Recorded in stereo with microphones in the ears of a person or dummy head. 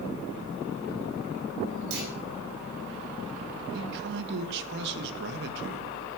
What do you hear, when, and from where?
1.9 s a clunk: 70° right (ahead or behind), 4.5 m
3.7 s a man speaking: 60° right (ahead or behind), 1.7 m